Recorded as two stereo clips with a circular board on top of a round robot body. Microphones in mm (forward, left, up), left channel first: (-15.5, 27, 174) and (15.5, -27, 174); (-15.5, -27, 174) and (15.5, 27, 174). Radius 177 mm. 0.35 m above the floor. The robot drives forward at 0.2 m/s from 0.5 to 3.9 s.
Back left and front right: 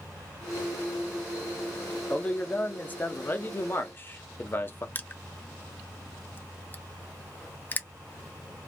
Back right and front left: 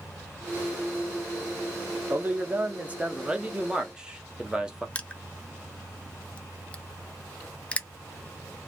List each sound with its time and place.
2.1 s a man speaking: 70° left, 0.8 m; by 4.8 s 125° left, 0.9 m
5.0 s crushing: 175° left, 0.6 m